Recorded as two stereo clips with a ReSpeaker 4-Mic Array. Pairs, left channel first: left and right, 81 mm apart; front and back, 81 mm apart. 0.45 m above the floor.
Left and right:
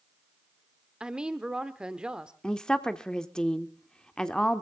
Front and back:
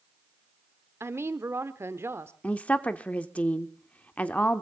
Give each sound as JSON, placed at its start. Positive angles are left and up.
{"t": 1.0, "sound": "a woman speaking", "azimuth_deg": -160, "distance_m": 0.9}
{"t": 2.4, "sound": "a woman speaking", "azimuth_deg": 30, "distance_m": 0.7}